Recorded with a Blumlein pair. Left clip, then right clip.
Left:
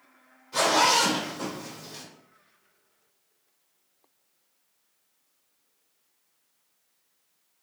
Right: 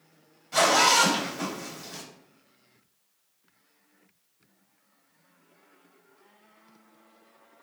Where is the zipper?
55° right, 1.9 m.